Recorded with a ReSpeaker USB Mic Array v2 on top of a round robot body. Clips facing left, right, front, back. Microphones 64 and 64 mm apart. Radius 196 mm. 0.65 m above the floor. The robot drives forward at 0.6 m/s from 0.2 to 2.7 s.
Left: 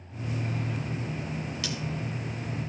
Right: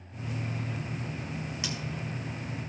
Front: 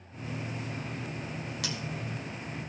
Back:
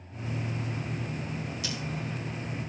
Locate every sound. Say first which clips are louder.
1.6 s scissors: even, even; 20° right, 2.0 m